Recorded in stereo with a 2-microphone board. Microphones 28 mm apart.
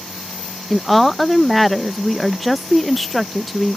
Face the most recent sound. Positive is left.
turn(degrees=5)  # may be behind; listen again after turning